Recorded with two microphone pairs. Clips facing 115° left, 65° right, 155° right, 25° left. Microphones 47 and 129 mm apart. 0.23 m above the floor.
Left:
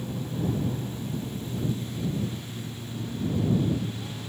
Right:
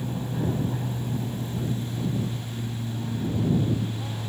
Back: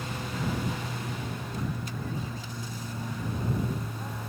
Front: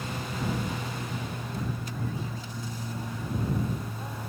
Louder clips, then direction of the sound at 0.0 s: Right 2 dB, even; 55° right.